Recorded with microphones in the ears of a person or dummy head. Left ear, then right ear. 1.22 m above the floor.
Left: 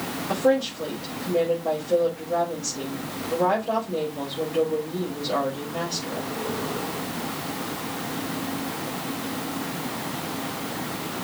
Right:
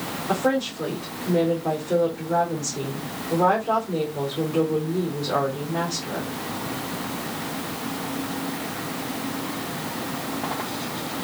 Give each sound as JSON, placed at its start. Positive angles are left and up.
{"t": 0.3, "sound": "a woman speaking", "side_deg": -60, "distance_m": 4.0}